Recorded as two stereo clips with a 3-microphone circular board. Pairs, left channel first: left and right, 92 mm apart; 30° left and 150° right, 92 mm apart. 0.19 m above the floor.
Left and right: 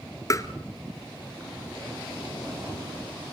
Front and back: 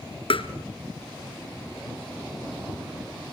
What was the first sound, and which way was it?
Tapping, 40° left.